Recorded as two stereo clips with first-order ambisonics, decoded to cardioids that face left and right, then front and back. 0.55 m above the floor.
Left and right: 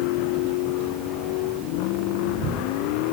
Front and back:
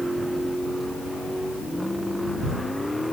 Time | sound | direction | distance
0.0 | a vehicle | 95° left | ?